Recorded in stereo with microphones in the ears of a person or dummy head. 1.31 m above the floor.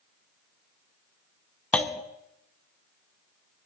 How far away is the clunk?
About 0.9 m.